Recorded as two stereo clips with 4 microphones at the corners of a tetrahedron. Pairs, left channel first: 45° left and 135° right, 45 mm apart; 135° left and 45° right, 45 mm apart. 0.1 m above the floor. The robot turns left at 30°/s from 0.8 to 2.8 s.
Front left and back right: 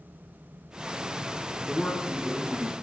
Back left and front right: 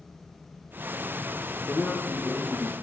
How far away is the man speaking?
About 1.1 m.